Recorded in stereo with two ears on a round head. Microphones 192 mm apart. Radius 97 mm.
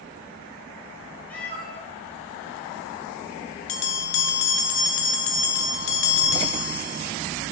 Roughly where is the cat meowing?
Centre.